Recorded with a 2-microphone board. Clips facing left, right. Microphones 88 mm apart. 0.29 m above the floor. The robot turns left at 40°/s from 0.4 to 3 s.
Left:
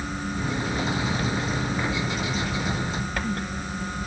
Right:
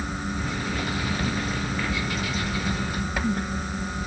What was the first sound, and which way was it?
Only background noise.